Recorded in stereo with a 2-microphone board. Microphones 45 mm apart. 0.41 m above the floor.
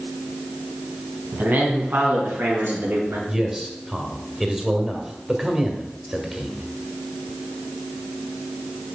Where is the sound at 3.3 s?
10° right (ahead or behind), 1.6 m.